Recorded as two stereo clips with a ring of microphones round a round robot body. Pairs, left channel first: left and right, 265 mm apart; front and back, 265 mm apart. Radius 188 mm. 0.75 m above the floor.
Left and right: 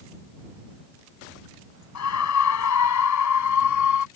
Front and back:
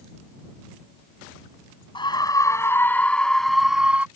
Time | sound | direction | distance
1.9 | a scream | 75° left | ?